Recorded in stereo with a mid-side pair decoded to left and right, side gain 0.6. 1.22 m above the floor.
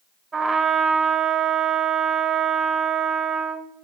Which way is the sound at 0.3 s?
30° right.